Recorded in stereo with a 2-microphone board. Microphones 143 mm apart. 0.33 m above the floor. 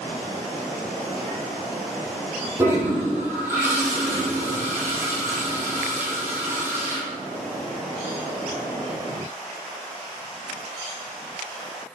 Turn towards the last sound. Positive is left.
turn(degrees=-15)  # may be behind; listen again after turning